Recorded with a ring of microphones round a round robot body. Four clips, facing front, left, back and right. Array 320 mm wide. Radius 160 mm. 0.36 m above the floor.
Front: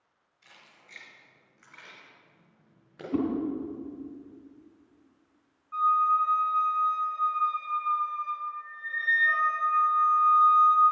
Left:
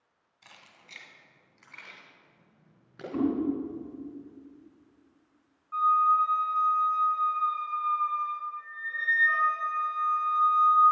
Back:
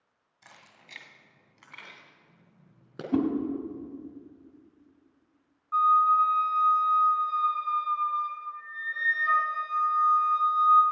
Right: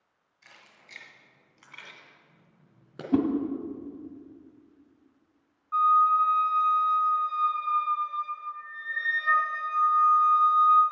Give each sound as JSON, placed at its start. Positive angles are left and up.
{"t": 0.4, "sound": "keys jangling", "azimuth_deg": 160, "distance_m": 1.9}
{"t": 3.1, "sound": "a whoosh", "azimuth_deg": -120, "distance_m": 2.0}
{"t": 5.7, "sound": "a flute", "azimuth_deg": -150, "distance_m": 3.0}